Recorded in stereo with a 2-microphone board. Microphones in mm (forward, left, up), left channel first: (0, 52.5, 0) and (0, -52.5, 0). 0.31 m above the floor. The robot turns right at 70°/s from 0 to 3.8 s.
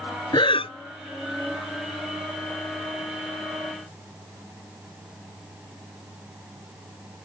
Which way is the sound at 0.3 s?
45° left (ahead or behind).